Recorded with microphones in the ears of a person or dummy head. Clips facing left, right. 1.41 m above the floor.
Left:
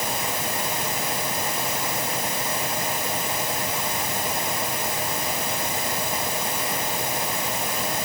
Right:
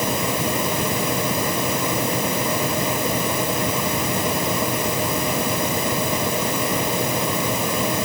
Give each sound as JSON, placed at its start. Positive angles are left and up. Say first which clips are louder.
{"t": 0.0, "sound": "a fan", "louder": "right 7 dB", "side_deg": -65}